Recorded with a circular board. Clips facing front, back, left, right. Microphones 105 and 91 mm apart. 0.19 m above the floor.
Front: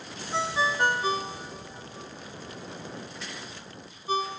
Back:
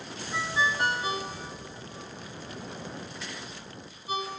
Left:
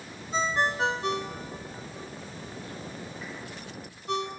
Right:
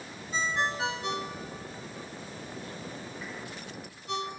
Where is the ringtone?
50° left, 1.2 m.